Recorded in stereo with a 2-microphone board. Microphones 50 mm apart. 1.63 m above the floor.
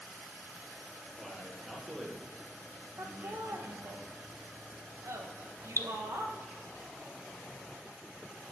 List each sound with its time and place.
1.2 s a man speaking: centre (ahead or behind), 3.5 m; by 4.0 s 55° right (ahead or behind), 2.0 m
3.0 s laughter: 70° right (ahead or behind), 2 m
5.8 s dripping: 55° left (ahead or behind), 0.6 m